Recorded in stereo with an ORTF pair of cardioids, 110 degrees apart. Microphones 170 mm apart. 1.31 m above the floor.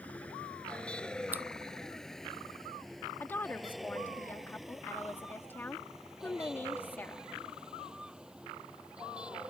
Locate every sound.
0.0 s a vehicle: 10° left; by 9.5 s 5° right
1.3 s scissors: 10° right
3.2 s a woman speaking: 10° left